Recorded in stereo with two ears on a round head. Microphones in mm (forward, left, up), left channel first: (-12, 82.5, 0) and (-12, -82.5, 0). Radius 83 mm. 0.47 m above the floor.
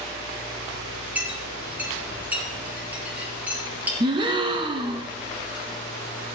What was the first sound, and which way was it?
A clink, 10° right (ahead or behind).